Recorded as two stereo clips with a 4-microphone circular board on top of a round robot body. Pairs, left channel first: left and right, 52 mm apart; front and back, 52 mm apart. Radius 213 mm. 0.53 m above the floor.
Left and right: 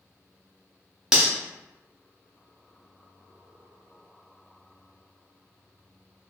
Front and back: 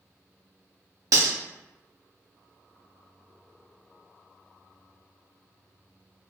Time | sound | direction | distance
1.1 | cutlery clinking | 170° right | 0.8 m